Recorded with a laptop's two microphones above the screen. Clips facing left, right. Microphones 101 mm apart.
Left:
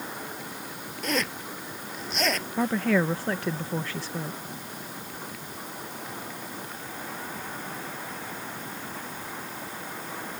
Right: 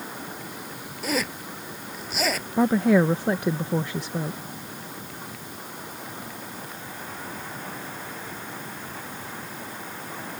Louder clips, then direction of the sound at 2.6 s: Right 6 dB; 20° right (ahead or behind).